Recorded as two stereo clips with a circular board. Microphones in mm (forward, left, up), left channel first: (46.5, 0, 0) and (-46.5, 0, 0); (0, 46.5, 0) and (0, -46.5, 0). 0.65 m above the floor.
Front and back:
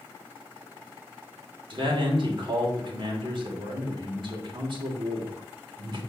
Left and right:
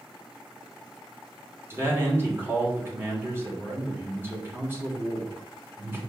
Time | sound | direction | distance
1.7 | a man speaking | 155° right | 2.5 m